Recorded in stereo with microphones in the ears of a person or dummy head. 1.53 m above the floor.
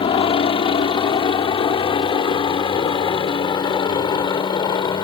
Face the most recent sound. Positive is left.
turn(degrees=30)  # may be behind; listen again after turning